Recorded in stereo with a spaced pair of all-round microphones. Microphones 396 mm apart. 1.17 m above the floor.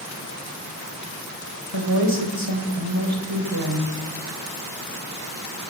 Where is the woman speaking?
80° right, 4.5 m.